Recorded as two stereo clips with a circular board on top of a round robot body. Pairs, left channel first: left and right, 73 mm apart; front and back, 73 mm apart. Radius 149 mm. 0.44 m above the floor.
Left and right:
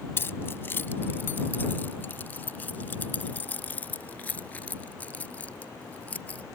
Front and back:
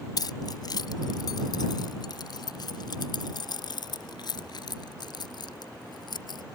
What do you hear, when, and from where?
0.2 s keys jangling: 30° left; by 6.4 s 20° left